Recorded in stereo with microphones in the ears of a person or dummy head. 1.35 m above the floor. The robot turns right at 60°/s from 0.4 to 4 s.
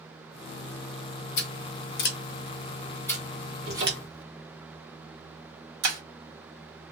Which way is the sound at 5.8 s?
70° right (ahead or behind).